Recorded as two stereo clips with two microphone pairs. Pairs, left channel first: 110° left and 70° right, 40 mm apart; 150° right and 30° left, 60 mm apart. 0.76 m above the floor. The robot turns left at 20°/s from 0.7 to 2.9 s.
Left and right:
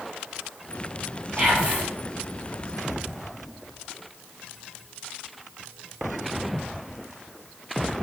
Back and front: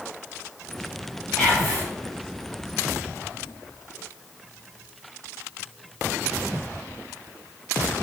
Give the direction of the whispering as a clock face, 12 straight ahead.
3 o'clock.